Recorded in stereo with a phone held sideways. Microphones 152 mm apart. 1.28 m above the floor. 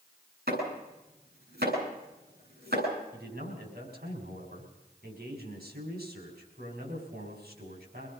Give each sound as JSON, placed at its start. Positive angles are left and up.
{"t": 0.5, "sound": "chopping", "side_deg": -85, "distance_m": 9.0}
{"t": 3.1, "sound": "a man speaking", "side_deg": -90, "distance_m": 5.0}